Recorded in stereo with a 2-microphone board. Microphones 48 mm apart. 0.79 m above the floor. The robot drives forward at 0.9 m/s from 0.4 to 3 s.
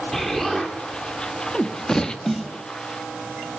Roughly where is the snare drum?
Centre.